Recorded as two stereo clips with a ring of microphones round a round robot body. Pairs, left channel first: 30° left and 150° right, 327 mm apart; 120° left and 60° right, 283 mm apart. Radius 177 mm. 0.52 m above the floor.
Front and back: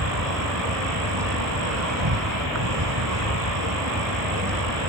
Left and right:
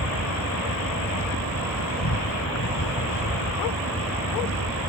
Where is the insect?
165° left.